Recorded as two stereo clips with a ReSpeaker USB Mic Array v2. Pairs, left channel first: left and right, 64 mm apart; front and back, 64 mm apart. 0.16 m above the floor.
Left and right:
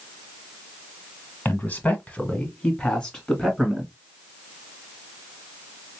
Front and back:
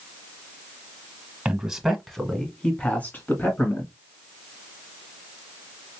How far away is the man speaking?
About 1.4 m.